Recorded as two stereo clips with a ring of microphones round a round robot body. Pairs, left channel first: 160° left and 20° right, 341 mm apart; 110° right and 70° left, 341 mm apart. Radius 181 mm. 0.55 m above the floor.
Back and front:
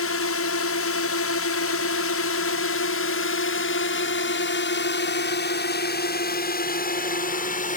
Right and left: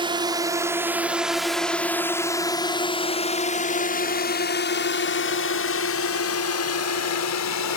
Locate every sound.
0.0 s a drone: 135° left; by 7.8 s 140° right